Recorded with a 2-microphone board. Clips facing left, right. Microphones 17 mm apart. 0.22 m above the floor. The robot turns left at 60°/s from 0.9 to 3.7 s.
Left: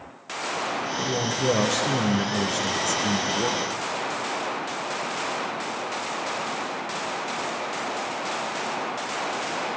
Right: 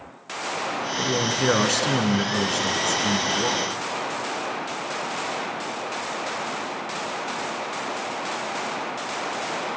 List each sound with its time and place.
1.0 s a man speaking: 65° right, 2.5 m; by 3.7 s 130° left, 2.5 m